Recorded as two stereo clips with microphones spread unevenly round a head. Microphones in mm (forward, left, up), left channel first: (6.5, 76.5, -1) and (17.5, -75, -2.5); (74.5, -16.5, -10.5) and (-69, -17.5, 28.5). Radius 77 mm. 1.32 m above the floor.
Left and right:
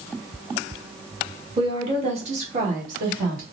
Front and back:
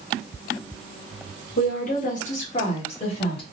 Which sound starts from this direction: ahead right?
A woman speaking, at 1.6 s.